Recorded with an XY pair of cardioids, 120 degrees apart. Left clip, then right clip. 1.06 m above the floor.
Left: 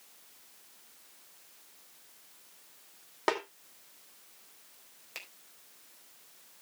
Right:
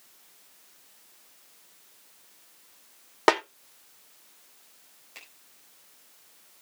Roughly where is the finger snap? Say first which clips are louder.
Left 3 dB; ahead left.